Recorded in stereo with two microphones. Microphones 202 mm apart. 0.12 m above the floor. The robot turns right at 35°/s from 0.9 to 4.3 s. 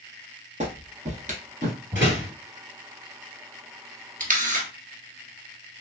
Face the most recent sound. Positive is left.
turn(degrees=-40)  # may be behind; listen again after turning